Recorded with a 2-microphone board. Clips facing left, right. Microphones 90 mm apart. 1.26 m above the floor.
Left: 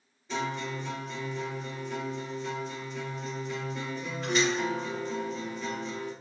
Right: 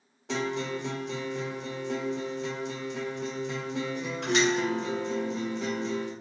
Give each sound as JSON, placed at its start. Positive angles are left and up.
{"t": 0.3, "sound": "a guitar", "side_deg": -80, "distance_m": 0.8}